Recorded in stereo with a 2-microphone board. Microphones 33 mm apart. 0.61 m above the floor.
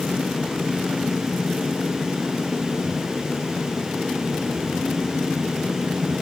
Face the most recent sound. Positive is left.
No sound to turn to.